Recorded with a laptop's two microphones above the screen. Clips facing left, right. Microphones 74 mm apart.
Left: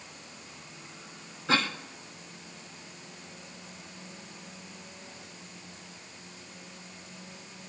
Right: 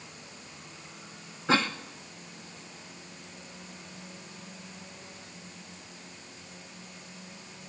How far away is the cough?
About 0.6 m.